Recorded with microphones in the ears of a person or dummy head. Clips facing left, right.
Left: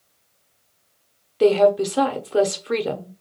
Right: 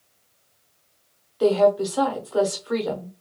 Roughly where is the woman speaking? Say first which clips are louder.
Left 2 dB; left.